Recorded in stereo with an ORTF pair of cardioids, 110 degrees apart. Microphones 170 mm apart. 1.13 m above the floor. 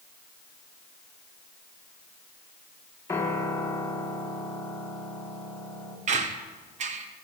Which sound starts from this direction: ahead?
A piano, at 3.1 s.